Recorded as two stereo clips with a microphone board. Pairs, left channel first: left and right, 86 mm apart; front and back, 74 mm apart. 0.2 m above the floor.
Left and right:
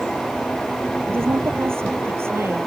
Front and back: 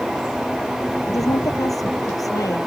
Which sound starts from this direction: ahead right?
A woman speaking, at 1.0 s.